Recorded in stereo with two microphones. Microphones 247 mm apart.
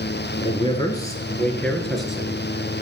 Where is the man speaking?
25° left (ahead or behind), 1.7 m; by 2.8 s 10° right (ahead or behind), 2.5 m.